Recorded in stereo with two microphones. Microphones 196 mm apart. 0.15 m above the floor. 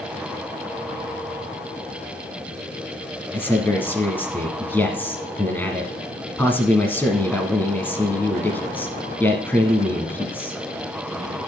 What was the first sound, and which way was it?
A man speaking, 10° left (ahead or behind).